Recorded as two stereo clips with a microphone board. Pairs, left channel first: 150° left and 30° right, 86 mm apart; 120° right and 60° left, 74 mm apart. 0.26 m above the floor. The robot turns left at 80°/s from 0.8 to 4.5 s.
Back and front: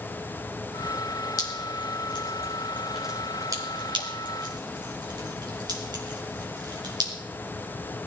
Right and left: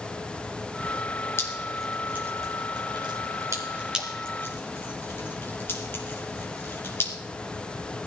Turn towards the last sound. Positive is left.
turn(degrees=-60)